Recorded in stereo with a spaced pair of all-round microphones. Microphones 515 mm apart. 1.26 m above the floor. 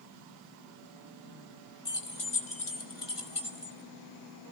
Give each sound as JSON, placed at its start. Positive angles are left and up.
{"t": 1.9, "sound": "keys jangling", "side_deg": 50, "distance_m": 2.0}